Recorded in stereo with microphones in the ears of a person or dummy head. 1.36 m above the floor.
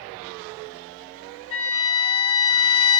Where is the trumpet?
30° left (ahead or behind), 0.6 m.